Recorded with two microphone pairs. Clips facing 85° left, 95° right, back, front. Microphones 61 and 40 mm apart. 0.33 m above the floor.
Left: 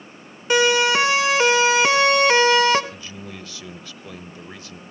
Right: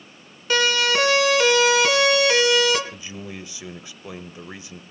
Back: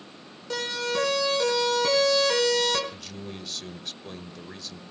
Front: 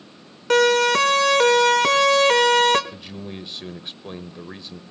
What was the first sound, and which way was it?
A siren, 15° left.